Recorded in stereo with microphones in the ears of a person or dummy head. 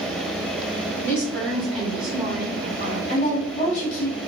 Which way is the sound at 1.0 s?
10° left (ahead or behind).